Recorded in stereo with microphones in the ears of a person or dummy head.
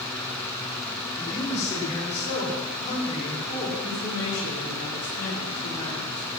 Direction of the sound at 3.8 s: 75° left (ahead or behind).